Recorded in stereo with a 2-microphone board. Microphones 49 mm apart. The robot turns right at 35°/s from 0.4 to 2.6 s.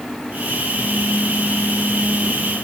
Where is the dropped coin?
I don't hear a dropped coin.